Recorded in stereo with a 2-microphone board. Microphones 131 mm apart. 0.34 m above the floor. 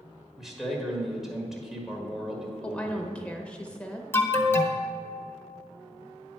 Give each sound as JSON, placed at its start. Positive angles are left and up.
{"t": 0.4, "sound": "a man speaking", "side_deg": -5, "distance_m": 1.6}
{"t": 2.6, "sound": "a woman speaking", "side_deg": 10, "distance_m": 0.8}
{"t": 4.1, "sound": "an alarm", "side_deg": 20, "distance_m": 1.0}